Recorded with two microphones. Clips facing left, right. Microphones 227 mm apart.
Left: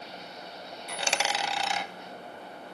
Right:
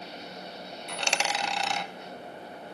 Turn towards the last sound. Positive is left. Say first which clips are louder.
# even
turn(degrees=5)  # may be behind; listen again after turning